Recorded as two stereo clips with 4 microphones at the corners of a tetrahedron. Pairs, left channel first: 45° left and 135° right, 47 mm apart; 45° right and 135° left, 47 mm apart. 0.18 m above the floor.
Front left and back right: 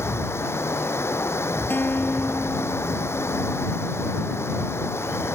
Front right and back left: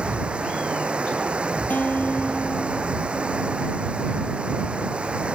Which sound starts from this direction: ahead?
A guitar, at 1.7 s.